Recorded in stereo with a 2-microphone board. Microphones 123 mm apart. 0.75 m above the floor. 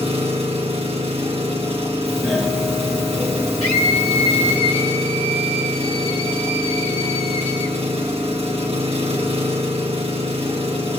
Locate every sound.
0.0 s an engine running: 55° right (ahead or behind), 2.5 m
2.1 s a doorbell: centre (ahead or behind), 1.3 m
3.6 s a scream: 55° left (ahead or behind), 1.5 m